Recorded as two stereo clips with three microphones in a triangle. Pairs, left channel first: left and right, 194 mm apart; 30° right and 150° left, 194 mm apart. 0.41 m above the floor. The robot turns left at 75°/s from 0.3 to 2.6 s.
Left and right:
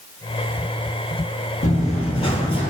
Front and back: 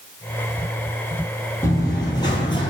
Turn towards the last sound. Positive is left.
turn(degrees=35)